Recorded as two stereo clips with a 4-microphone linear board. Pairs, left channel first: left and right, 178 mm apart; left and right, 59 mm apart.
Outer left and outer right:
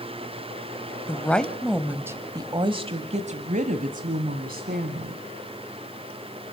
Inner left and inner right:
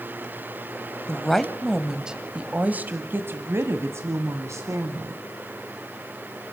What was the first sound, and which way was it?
A woman speaking, 10° left (ahead or behind).